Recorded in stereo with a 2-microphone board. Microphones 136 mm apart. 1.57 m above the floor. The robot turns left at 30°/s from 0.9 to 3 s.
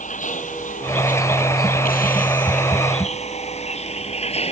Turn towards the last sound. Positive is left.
turn(degrees=45)  # may be behind; listen again after turning